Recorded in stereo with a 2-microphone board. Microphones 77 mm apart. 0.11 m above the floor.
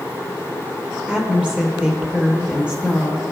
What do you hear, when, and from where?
1.1 s a woman speaking: 15° right (ahead or behind), 2.5 m